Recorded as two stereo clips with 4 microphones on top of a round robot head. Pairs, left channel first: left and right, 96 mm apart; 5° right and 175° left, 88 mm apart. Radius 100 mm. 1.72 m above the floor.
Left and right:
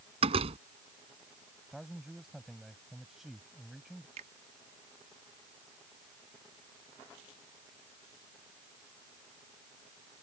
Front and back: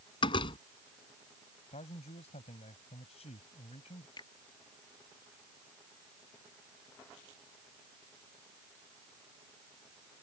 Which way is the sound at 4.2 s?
60° right.